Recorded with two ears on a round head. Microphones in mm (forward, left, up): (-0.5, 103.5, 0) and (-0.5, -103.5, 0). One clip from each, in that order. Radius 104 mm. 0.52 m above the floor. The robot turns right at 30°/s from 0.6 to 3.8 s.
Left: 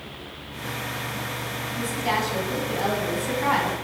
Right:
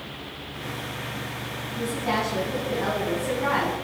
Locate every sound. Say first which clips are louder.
1.8 s a woman speaking: left 1 dB; 75° left, 4 m; by 3.8 s 135° left, 4 m